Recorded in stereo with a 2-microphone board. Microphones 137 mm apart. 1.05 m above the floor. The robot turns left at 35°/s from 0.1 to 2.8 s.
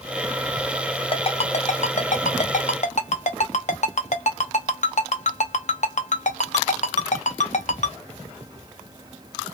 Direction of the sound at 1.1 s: 45° left (ahead or behind).